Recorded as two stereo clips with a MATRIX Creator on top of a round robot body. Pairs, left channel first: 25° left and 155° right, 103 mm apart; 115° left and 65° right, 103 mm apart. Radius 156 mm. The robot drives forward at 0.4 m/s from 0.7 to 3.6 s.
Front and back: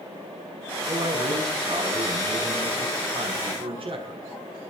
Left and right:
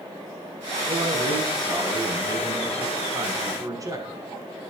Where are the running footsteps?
I don't hear running footsteps.